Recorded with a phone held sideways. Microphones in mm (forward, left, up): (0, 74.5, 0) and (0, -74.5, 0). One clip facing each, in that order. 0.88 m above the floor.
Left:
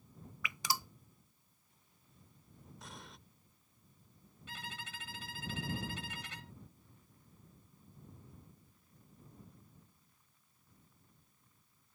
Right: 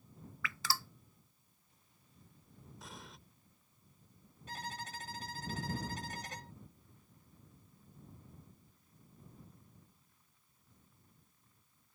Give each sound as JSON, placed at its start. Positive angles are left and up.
{"t": 0.4, "sound": "dripping", "side_deg": 15}
{"t": 2.8, "sound": "an explosion", "side_deg": 0}
{"t": 4.5, "sound": "a violin", "side_deg": -40}